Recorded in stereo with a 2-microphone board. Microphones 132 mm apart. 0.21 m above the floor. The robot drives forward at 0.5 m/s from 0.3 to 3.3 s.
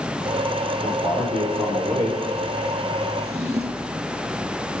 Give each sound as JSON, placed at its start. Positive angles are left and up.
{"t": 0.8, "sound": "a man speaking", "side_deg": -55, "distance_m": 7.5}
{"t": 3.2, "sound": "a drawer", "side_deg": -55, "distance_m": 2.0}